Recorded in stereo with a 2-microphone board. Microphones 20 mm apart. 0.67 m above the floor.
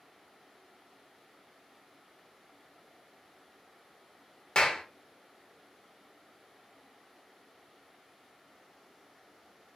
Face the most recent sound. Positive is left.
turn(degrees=50)  # may be behind; listen again after turning